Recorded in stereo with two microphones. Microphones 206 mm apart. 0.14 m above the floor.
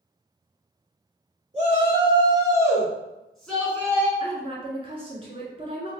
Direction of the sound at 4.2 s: 25° right (ahead or behind).